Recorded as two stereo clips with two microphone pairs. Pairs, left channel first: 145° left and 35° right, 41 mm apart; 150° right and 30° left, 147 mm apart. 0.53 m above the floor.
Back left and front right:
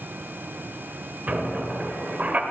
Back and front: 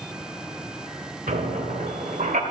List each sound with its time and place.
1.3 s a squeak: 10° left, 1.2 m